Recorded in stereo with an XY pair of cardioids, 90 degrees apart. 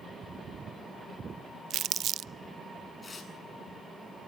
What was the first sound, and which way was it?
Crumpling, 65° right.